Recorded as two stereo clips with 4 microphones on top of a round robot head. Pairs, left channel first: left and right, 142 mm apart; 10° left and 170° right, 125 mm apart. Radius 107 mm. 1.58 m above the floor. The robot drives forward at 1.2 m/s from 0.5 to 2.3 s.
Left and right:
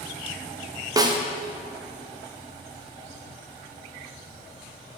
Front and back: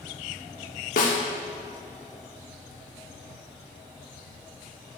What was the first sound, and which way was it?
A snare drum, 25° right.